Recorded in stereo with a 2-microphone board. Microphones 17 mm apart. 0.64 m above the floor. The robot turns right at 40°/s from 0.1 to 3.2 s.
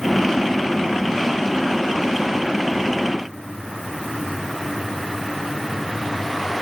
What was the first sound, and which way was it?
Only background noise.